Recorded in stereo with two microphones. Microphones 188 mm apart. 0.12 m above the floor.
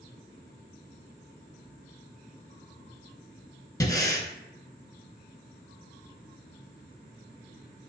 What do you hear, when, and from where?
3.8 s breathing: 20° left (ahead or behind), 0.7 m